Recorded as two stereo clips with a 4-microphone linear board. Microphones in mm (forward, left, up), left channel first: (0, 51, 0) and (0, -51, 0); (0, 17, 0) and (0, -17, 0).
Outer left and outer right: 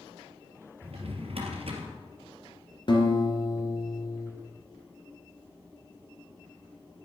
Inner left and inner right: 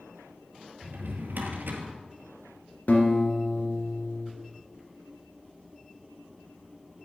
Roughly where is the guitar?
Left.